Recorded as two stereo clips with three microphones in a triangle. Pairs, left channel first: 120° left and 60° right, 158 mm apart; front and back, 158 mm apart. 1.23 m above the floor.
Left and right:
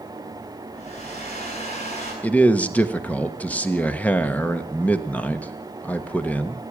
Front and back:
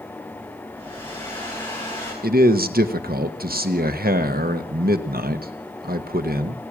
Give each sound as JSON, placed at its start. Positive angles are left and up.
{"t": 0.7, "sound": "a hair dryer", "azimuth_deg": 75, "distance_m": 8.5}
{"t": 2.2, "sound": "a man speaking", "azimuth_deg": -160, "distance_m": 1.1}